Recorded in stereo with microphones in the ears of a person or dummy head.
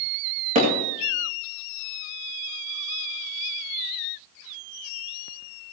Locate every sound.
0.6 s hammering: 35° right (ahead or behind), 2.5 m